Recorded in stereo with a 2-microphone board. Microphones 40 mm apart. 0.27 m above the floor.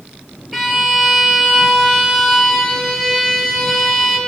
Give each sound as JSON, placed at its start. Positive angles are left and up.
{"t": 0.5, "sound": "a violin", "side_deg": 0, "distance_m": 2.0}